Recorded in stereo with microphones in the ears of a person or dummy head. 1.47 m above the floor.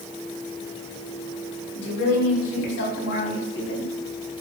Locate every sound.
1.8 s a woman speaking: 75° left (ahead or behind), 4 m; by 3.9 s 65° left (ahead or behind), 4.5 m